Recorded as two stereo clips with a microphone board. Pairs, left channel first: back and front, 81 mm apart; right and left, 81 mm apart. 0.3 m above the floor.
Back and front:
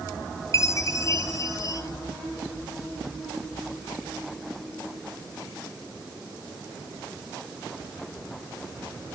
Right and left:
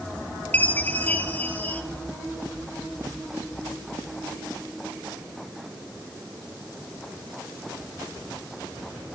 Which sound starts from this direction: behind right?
A chime, at 0.5 s.